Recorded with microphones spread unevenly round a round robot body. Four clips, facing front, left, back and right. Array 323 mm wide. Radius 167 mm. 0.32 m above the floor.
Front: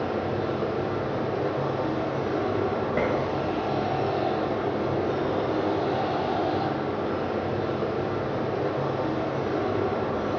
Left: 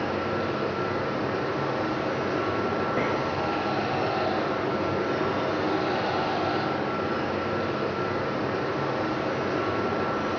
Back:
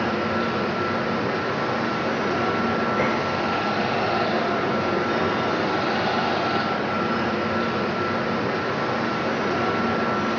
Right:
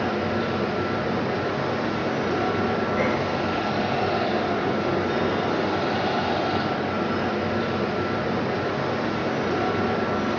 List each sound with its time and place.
0.0 s running water: 175° left, 3.5 m
3.0 s dishes clattering: 50° left, 3.5 m